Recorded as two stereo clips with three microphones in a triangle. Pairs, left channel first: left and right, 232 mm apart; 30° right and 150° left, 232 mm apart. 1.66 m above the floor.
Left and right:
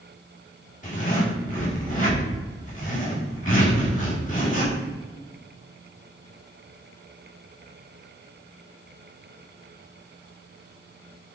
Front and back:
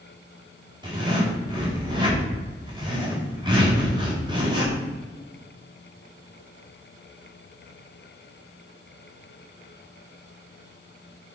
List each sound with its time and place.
0.8 s a zipper: 95° left, 1.3 m